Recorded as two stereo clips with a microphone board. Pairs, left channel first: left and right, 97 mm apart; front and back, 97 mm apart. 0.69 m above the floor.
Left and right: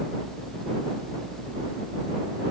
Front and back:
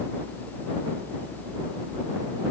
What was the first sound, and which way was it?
Only background noise.